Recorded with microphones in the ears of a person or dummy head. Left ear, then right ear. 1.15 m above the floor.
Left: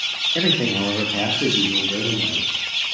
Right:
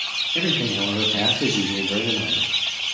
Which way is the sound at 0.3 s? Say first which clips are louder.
Left 1 dB; 30° left (ahead or behind).